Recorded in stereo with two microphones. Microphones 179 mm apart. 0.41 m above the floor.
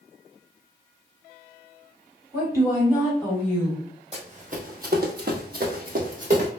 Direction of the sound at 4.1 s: 35° right (ahead or behind).